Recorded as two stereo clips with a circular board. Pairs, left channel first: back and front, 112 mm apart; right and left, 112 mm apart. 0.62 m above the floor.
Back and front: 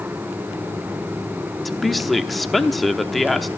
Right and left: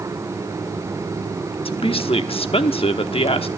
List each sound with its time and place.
1.6 s a woman speaking: 90° right, 0.9 m